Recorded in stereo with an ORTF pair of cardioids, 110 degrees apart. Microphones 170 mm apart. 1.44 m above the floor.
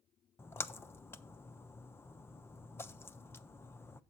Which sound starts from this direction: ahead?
A splash, at 0.4 s.